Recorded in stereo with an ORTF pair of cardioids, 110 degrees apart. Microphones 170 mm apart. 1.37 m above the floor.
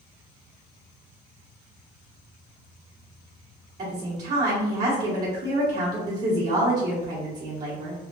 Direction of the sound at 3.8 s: 50° right.